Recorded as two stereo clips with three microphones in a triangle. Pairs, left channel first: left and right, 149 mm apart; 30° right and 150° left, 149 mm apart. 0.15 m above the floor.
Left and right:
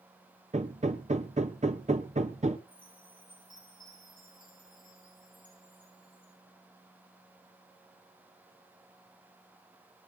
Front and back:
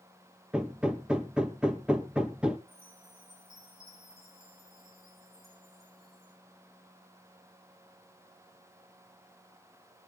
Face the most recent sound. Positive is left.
turn(degrees=145)